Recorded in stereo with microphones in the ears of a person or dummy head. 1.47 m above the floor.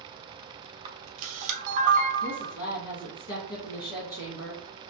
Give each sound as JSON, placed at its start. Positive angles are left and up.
{"t": 0.8, "sound": "a camera shutter", "side_deg": -45, "distance_m": 0.8}
{"t": 2.2, "sound": "a woman speaking", "side_deg": 70, "distance_m": 1.5}